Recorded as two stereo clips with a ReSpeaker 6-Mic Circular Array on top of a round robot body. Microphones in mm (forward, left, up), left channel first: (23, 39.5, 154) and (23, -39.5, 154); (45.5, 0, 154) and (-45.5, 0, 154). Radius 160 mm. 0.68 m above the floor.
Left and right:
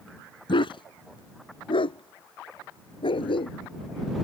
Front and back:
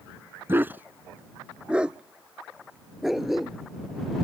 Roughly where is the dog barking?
Left.